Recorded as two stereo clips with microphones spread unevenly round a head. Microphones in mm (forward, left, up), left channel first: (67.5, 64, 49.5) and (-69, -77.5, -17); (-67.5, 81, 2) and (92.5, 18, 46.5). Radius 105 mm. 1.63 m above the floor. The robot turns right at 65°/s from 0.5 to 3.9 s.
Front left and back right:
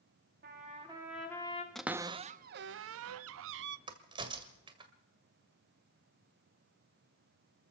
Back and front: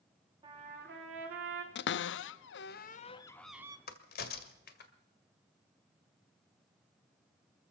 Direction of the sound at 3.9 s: 145° left.